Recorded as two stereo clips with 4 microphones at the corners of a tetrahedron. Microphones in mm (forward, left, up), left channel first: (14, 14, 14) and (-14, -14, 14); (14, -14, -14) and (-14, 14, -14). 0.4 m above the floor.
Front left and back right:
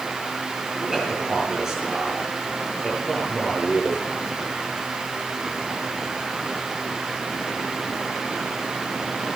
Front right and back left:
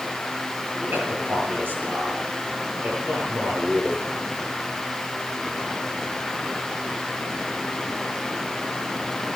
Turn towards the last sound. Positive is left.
turn(degrees=145)